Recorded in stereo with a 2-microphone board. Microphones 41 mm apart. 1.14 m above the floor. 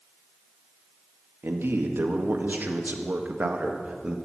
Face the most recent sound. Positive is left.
turn(degrees=-25)  # may be behind; listen again after turning